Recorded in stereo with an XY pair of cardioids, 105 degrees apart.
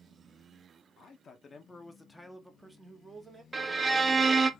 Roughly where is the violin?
Ahead right.